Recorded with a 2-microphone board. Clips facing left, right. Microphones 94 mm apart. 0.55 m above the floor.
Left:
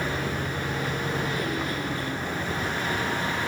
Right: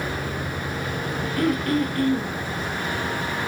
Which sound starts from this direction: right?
Throat clearing, at 1.4 s.